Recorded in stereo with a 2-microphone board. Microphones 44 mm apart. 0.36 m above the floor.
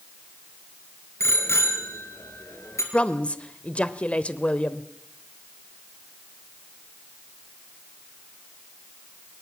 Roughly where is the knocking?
No knocking in this recording.